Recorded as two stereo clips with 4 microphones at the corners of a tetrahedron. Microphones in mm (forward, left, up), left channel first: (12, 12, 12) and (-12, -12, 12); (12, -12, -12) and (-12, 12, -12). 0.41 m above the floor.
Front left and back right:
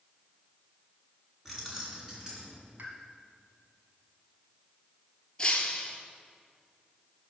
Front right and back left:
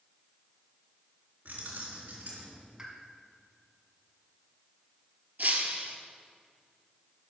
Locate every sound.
1.4 s keys jangling: 140° left, 2.5 m; by 2.6 s 150° left, 3.5 m
2.8 s a pop: 165° right, 1.6 m
5.4 s breaking glass: 110° left, 1.2 m